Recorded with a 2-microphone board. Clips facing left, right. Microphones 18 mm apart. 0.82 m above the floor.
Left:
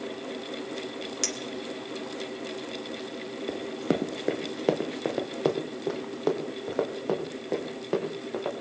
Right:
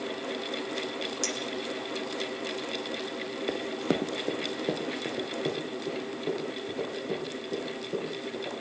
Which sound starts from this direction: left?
A clink, at 1.2 s.